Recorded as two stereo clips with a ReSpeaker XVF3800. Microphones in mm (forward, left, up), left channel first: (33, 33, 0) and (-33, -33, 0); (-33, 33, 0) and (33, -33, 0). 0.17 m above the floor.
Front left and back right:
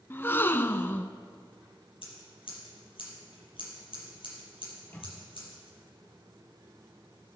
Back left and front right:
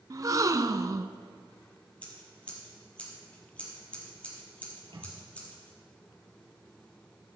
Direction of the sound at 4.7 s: 20° right.